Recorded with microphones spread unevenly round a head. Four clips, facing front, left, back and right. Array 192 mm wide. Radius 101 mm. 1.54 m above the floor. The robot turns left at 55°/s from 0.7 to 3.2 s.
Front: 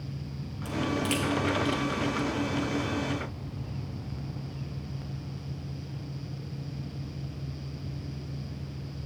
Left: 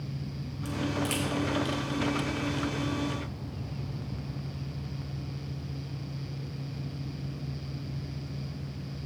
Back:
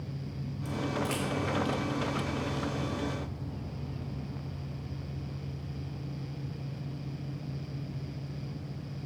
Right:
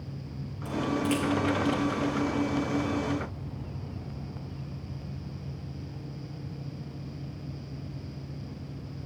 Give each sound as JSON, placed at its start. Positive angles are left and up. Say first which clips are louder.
{"t": 0.7, "sound": "a crack", "louder": "right 4 dB, front 4 dB", "azimuth_deg": -45, "distance_m": 1.1}